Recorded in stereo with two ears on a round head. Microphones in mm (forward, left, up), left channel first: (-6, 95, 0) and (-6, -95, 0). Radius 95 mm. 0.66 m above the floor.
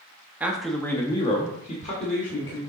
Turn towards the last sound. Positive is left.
turn(degrees=35)  # may be behind; listen again after turning